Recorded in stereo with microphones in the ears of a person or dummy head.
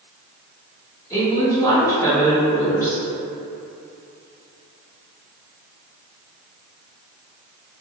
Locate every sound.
1.1 s a woman speaking: 15° left (ahead or behind), 0.8 m